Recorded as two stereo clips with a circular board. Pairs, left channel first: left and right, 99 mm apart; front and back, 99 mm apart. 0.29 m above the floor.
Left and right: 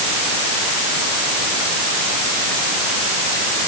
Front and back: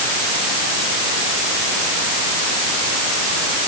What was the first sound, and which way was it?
Only background noise.